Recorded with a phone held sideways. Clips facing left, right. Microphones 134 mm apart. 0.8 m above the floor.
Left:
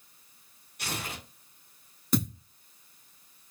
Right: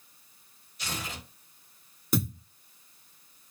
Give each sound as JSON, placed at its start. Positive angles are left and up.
{"t": 0.8, "sound": "tearing paper", "side_deg": 60, "distance_m": 1.9}
{"t": 2.1, "sound": "a thud", "side_deg": -5, "distance_m": 0.7}